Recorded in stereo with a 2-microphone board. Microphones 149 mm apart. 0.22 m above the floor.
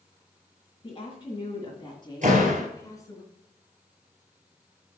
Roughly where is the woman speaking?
Left.